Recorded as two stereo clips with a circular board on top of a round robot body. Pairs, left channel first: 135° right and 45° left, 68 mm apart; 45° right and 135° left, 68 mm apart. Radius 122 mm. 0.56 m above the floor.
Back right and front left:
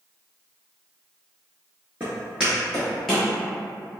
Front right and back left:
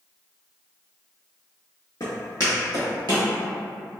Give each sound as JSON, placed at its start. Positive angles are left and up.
{"t": 2.0, "sound": "footsteps", "azimuth_deg": -15, "distance_m": 0.5}